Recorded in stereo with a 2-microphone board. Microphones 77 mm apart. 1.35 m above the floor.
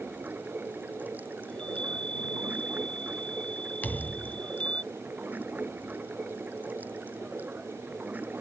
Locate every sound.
0.0 s running water: 20° right (ahead or behind)
1.5 s a chime: 15° left (ahead or behind)
3.8 s a thud: 20° left (ahead or behind)